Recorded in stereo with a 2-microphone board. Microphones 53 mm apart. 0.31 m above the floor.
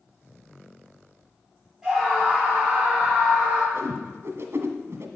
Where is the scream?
10° right (ahead or behind), 7.5 m; by 3.6 s 20° right (ahead or behind), 8 m.